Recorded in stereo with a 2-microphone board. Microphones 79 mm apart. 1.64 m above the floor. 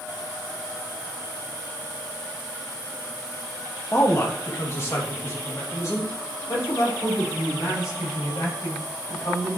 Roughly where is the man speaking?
Left.